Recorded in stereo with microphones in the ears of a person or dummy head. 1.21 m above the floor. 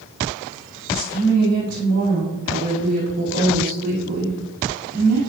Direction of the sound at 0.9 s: 40° right (ahead or behind).